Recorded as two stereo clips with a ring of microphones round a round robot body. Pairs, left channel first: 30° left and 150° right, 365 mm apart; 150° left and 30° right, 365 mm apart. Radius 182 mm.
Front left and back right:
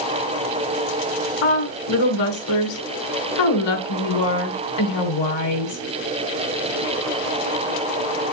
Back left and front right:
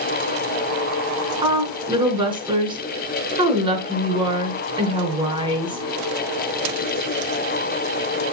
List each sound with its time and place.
1.4 s a woman speaking: 50° left, 7.5 m